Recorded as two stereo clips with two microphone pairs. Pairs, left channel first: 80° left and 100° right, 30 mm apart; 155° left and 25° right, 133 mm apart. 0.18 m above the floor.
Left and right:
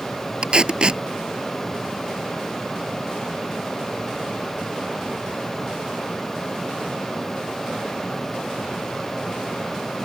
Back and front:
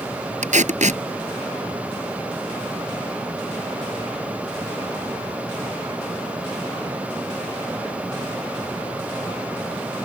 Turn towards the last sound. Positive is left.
turn(degrees=-45)